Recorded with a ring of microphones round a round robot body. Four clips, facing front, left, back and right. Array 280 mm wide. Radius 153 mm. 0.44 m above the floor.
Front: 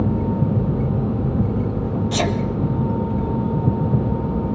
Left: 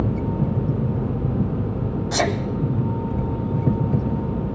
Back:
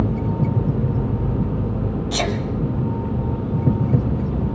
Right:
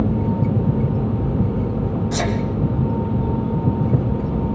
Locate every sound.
2.1 s a sneeze: 60° left, 1.1 m